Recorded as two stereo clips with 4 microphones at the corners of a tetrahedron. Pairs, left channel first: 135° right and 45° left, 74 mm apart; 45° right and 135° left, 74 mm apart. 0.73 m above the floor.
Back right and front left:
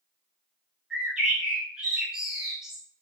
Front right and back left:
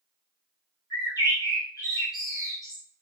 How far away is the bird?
About 1.8 m.